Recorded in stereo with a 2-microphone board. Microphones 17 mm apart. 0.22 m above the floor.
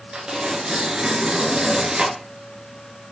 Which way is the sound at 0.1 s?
65° right (ahead or behind).